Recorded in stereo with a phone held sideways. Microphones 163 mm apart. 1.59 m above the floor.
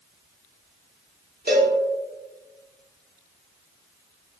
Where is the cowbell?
70° right (ahead or behind), 0.7 m.